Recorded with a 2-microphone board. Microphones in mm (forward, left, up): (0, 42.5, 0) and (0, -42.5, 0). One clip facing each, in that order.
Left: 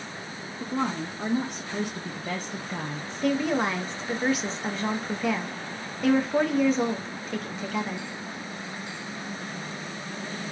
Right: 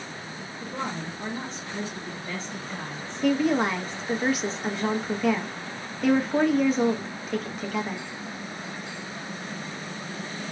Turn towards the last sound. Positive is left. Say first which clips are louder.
# right 2 dB
turn(degrees=0)  # may be behind; listen again after turning